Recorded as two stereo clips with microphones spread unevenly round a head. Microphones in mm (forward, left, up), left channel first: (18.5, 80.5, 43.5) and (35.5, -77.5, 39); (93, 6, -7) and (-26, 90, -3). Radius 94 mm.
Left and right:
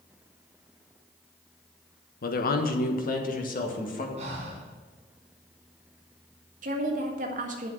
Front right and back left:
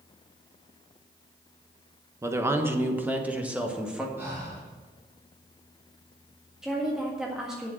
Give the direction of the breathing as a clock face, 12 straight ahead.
5 o'clock.